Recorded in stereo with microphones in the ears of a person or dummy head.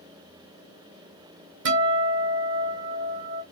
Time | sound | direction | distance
1.6 | a guitar | 65° right (ahead or behind) | 2 m